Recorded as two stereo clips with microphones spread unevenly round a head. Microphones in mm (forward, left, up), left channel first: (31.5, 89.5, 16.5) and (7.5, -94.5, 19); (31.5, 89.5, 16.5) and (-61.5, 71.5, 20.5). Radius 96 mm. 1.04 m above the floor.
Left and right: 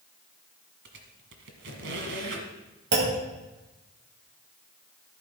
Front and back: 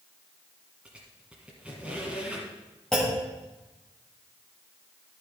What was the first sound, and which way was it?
A squeak, 85° right.